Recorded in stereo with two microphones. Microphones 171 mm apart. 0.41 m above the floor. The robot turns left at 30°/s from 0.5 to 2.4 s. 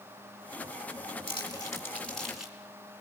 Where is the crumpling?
30° left (ahead or behind), 5 m; by 2.6 s 5° right (ahead or behind), 5 m.